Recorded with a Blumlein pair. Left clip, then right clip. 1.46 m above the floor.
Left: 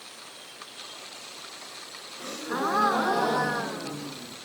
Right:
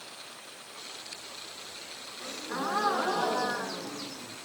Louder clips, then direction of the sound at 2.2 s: Left 5 dB; 15° left.